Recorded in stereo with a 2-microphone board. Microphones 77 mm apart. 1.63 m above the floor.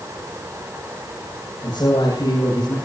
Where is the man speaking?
65° left (ahead or behind), 8.5 m; by 2.8 s 60° left (ahead or behind), 9.5 m.